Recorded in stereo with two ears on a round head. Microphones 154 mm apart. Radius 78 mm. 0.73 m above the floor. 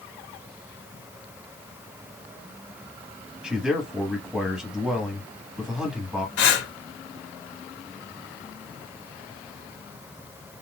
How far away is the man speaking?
About 1.3 m.